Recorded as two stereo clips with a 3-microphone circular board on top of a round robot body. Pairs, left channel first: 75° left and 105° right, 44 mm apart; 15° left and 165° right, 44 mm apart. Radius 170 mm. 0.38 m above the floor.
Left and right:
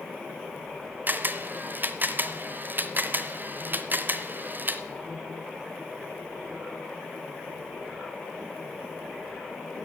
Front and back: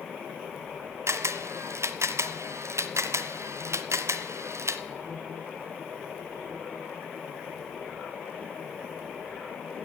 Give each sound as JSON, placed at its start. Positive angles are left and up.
{"t": 1.1, "sound": "a camera shutter", "azimuth_deg": -155, "distance_m": 0.7}